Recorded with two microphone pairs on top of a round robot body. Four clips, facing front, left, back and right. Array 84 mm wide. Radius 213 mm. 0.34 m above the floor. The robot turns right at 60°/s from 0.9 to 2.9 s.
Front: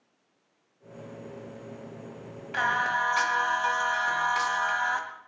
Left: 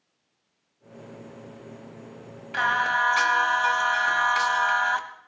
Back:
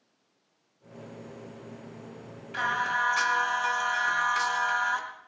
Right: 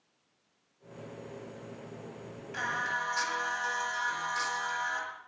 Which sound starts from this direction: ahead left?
Singing, at 2.5 s.